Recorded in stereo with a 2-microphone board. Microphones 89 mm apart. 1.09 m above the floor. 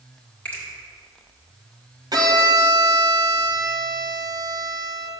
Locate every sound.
0.5 s a finger snap: 20° left (ahead or behind), 2 m
2.1 s a violin: 50° right (ahead or behind), 1.0 m